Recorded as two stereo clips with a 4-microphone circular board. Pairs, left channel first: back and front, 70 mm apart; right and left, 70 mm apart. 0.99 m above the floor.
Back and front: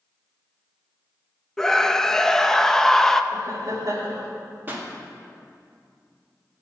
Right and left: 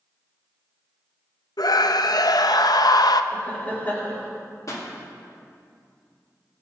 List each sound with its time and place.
1.6 s a scream: 100° right, 0.6 m
3.3 s laughter: 25° right, 2.5 m
4.7 s a pop: 60° right, 2.0 m